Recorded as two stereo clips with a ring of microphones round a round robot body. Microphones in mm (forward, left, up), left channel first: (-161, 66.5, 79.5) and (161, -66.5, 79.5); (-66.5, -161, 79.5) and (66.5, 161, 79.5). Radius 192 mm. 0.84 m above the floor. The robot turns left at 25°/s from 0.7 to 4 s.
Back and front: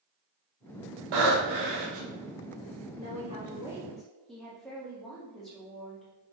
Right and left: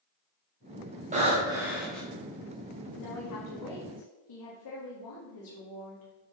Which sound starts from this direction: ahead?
Breathing, at 1.1 s.